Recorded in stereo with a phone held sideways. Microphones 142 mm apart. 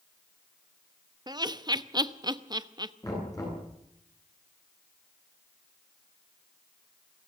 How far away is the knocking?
About 10 m.